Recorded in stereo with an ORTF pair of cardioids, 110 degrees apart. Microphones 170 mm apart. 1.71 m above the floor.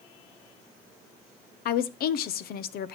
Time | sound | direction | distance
1.6 | a woman speaking | 65° left | 1.0 m